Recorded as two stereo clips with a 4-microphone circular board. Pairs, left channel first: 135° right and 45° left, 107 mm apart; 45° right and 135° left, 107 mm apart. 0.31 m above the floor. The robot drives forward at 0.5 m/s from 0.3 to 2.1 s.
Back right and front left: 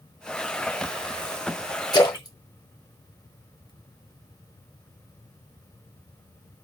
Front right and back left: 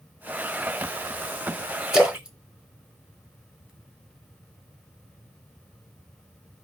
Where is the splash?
140° right, 0.9 m; by 3.7 s 145° right, 0.9 m.